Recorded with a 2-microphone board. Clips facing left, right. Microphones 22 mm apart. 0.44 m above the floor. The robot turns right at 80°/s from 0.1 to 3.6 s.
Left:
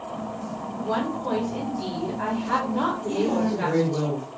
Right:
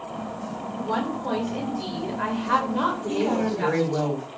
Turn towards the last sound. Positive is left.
turn(degrees=-70)